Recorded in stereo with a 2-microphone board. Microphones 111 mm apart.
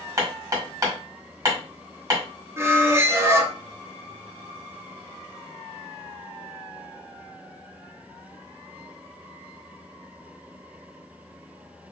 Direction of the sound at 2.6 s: 20° right (ahead or behind).